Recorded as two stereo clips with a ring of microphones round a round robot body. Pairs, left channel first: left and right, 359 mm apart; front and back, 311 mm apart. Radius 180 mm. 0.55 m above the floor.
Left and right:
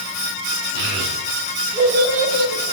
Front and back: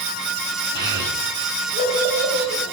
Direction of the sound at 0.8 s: 130° left.